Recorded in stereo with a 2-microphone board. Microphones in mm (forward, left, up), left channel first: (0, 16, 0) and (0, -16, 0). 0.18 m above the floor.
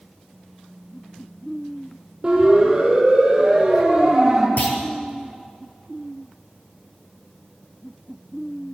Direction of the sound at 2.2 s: 20° right (ahead or behind).